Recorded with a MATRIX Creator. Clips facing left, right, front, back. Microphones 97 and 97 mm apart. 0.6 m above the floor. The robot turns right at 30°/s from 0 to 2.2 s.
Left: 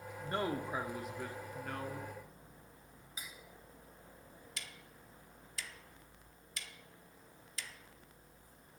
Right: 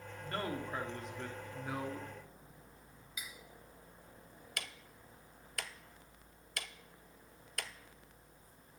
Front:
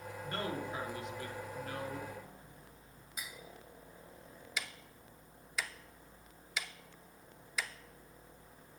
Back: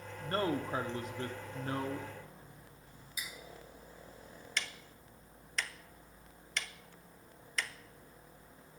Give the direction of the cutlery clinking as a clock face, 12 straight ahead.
11 o'clock.